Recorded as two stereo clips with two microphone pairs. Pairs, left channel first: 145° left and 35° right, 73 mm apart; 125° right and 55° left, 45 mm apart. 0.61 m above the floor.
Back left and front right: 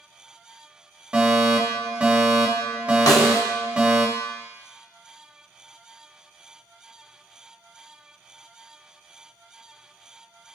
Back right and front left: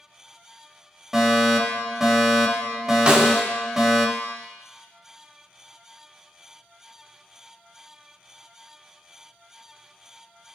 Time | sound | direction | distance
1.1 | a fire alarm | 10° right | 1.5 m
3.1 | a snare drum | 115° left | 0.9 m